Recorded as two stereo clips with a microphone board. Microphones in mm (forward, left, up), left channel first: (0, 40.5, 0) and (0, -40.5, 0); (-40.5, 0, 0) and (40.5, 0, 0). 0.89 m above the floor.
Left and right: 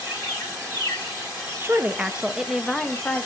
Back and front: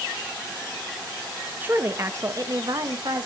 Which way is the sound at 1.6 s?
50° right.